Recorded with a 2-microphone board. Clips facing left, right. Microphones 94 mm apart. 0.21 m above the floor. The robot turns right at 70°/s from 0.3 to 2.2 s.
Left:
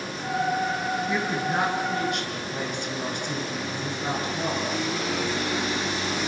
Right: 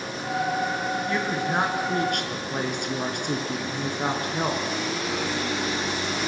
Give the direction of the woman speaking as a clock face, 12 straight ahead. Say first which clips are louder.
Even; 6 o'clock.